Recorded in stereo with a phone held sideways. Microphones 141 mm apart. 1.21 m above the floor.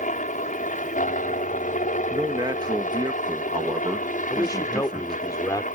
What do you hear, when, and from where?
0.0 s a helicopter: 65° left (ahead or behind); by 5.8 s 70° left (ahead or behind)
2.1 s a man speaking: 30° right (ahead or behind)
4.3 s a man speaking: 25° left (ahead or behind)